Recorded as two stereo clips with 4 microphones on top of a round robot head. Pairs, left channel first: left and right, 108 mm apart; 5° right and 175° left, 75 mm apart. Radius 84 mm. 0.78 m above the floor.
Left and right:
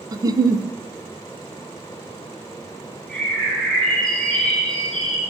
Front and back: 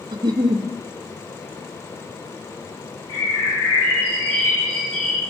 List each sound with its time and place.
0.1 s a giggle: 145° right, 0.7 m
3.1 s a bird: straight ahead, 7 m